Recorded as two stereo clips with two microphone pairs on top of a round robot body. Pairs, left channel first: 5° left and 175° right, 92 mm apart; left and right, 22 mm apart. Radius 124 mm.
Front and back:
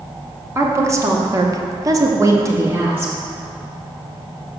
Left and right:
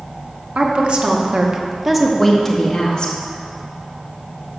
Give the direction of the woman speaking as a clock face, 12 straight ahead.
4 o'clock.